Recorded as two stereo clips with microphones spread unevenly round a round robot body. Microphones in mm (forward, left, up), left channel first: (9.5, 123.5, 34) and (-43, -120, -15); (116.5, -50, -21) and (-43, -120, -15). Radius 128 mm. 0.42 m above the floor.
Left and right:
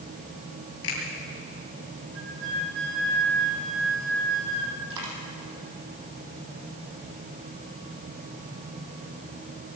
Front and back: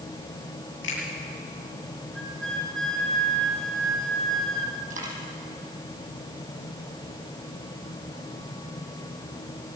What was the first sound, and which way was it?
A finger snap, 35° left.